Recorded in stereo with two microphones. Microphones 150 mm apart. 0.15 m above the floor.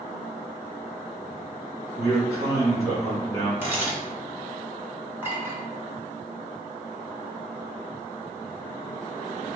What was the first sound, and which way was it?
A man speaking, 20° left (ahead or behind).